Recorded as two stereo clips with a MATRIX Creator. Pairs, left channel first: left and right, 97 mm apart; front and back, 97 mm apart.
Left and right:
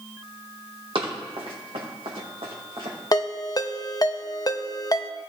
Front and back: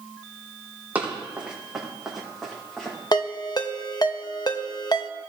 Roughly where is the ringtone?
Ahead left.